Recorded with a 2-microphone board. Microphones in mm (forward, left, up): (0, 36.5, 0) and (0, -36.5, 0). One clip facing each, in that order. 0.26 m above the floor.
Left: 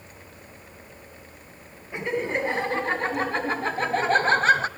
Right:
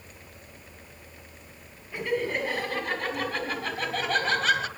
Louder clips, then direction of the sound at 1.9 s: Left 1 dB; 20° left (ahead or behind).